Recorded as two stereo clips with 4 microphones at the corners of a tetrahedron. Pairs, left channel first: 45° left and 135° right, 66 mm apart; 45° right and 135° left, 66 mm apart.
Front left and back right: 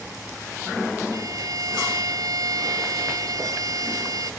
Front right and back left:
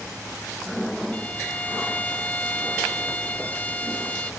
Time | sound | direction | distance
1.1 | a violin | 110° right | ?